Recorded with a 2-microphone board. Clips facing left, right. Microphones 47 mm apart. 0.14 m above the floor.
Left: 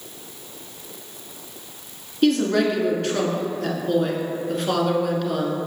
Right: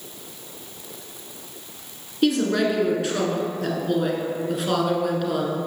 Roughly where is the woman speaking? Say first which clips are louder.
Left 2 dB; centre.